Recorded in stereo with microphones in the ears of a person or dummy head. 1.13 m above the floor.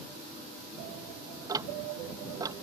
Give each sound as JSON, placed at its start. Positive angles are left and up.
{"t": 1.5, "sound": "ticking", "side_deg": -20}